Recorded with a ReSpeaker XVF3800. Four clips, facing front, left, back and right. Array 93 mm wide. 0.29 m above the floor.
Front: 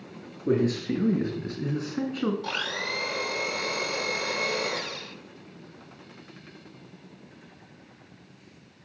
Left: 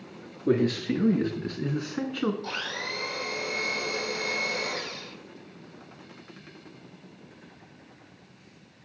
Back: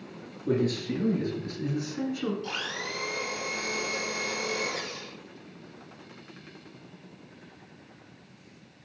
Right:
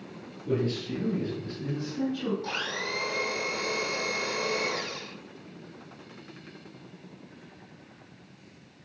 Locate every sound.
0.5 s a man speaking: 65° left, 4 m; by 2.3 s 55° left, 3 m
2.4 s a blender: 5° right, 7.5 m